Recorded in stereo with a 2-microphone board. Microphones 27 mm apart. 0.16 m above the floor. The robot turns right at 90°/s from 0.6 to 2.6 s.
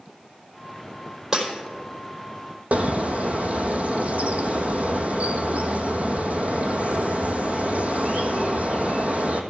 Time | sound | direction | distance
1.3 | breaking glass | 20° right (ahead or behind) | 4 m
2.7 | a bird | 60° right (ahead or behind) | 1.3 m